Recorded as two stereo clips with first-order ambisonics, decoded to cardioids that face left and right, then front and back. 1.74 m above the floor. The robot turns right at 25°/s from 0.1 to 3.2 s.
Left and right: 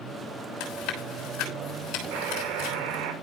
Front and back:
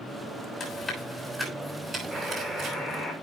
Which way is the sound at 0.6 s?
55° left.